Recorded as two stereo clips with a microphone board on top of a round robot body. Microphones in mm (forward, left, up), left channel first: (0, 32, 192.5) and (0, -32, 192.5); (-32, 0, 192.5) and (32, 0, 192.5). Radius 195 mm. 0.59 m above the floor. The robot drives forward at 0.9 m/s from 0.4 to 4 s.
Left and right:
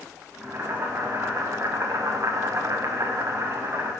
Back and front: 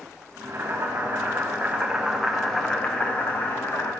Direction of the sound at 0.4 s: 35° right.